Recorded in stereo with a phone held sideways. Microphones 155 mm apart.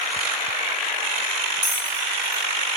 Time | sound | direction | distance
1.6 | a bell | 15° right (ahead or behind) | 1.8 m